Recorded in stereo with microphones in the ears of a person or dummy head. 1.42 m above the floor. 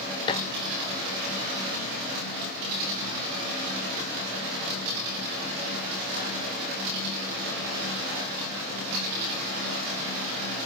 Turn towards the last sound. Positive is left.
turn(degrees=25)  # may be behind; listen again after turning